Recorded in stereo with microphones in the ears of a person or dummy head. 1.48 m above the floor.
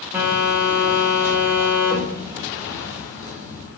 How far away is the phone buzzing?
About 0.7 m.